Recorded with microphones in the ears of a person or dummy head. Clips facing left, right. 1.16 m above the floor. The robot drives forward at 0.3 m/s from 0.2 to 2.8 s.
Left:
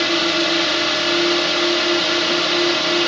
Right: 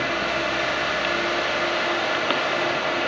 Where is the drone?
45° left (ahead or behind).